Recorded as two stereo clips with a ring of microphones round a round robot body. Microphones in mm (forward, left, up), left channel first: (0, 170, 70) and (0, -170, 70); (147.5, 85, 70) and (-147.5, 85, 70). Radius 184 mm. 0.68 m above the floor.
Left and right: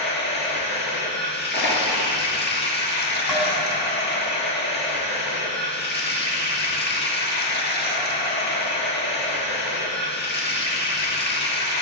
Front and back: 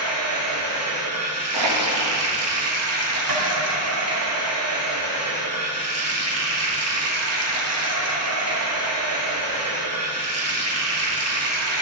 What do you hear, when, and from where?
0.0 s running water: 150° left, 1.3 m
1.5 s crushing: 150° left, 1.9 m
3.3 s tapping: straight behind, 2.5 m